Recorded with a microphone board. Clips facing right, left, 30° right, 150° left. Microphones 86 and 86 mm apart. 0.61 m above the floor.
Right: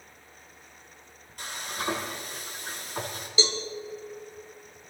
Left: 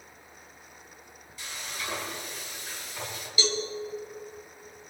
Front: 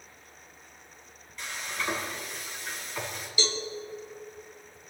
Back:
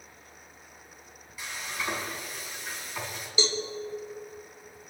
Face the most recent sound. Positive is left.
turn(degrees=-150)